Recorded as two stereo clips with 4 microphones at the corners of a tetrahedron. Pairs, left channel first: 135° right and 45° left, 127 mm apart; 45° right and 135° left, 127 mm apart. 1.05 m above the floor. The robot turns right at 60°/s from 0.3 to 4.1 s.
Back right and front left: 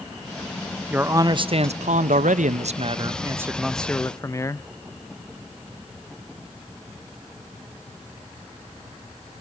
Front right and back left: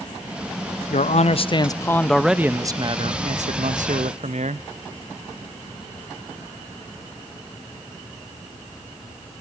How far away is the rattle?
I don't hear a rattle.